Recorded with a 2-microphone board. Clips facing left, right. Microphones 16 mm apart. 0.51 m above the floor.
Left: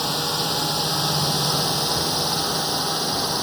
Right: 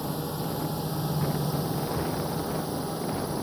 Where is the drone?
60° left (ahead or behind).